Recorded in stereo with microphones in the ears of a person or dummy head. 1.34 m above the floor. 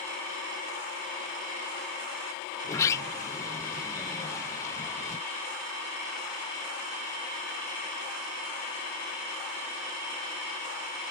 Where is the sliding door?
15° left (ahead or behind).